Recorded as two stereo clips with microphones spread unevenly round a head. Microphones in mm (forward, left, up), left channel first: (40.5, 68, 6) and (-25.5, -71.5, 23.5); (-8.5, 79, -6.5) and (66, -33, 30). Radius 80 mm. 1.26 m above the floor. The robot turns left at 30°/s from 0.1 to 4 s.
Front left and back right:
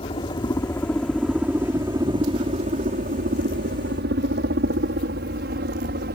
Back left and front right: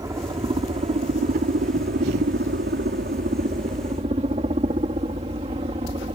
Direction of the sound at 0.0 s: 10° left.